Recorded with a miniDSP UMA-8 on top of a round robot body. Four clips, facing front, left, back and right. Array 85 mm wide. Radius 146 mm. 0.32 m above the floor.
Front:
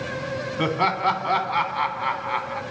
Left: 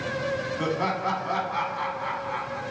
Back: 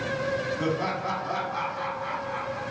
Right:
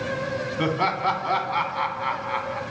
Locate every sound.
0.6 s laughter: 25° right, 1.4 m